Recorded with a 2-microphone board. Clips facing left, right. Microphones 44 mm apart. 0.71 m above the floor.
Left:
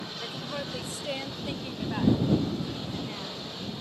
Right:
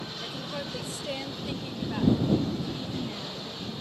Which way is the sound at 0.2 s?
10° left (ahead or behind).